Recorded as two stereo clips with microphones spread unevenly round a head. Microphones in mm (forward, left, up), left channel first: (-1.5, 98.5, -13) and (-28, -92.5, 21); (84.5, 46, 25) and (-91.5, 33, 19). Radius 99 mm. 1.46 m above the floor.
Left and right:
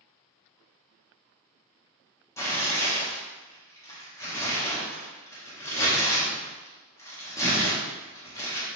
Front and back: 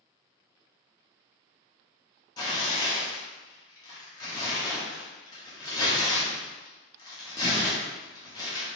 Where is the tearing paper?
5° left, 0.6 m.